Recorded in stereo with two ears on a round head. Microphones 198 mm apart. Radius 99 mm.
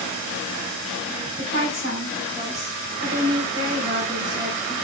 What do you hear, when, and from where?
1.4 s a woman speaking: 45° right (ahead or behind), 2.5 m